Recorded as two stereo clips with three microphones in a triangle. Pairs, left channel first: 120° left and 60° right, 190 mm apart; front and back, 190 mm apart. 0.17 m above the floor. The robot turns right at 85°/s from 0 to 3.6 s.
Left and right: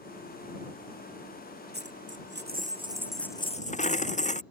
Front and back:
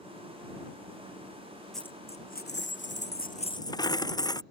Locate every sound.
1.7 s a dropped coin: 90° right; by 4.4 s 70° left